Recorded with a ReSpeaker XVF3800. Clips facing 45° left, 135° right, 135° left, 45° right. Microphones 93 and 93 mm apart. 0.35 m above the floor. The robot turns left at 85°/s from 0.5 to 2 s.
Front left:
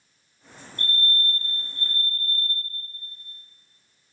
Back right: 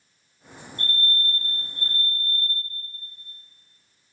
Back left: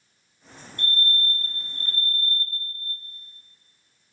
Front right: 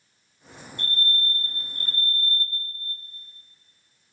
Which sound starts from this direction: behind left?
A fire alarm, at 0.8 s.